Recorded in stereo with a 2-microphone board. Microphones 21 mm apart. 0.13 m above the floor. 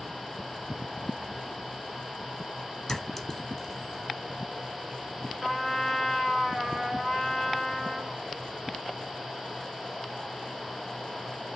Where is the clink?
25° left (ahead or behind), 1.0 m.